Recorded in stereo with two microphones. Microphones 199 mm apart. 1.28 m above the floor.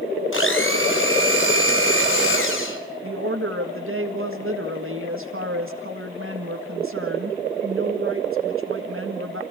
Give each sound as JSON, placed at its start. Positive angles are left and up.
{"t": 0.3, "sound": "a blender", "side_deg": 75, "distance_m": 2.5}
{"t": 3.0, "sound": "a woman speaking", "side_deg": -80, "distance_m": 1.7}